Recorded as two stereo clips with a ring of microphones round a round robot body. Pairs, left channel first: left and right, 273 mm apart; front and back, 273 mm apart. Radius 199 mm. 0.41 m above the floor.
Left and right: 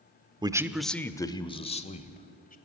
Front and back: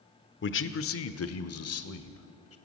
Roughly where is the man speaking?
Ahead.